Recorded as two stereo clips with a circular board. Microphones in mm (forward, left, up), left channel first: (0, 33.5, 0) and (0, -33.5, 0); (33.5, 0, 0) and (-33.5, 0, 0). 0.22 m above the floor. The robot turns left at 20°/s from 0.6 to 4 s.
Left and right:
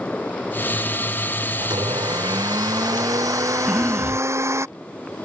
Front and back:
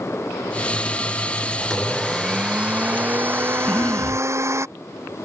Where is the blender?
85° right; by 4.7 s 135° right.